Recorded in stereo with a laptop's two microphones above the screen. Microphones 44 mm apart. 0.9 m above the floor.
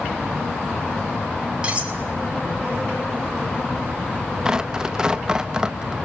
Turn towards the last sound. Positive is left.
turn(degrees=-15)  # may be behind; listen again after turning